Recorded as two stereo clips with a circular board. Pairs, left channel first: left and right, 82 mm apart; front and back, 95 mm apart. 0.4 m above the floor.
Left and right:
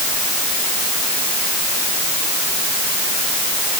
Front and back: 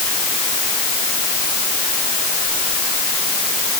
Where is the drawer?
I don't hear a drawer.